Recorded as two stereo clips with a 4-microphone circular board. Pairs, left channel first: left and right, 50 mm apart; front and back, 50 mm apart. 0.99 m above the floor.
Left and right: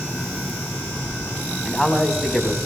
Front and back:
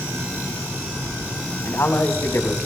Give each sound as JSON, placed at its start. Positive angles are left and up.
{"t": 1.6, "sound": "a man speaking", "azimuth_deg": 5, "distance_m": 2.5}